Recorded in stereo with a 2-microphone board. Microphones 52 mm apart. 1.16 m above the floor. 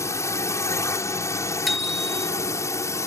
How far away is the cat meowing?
No cat meowing in this recording.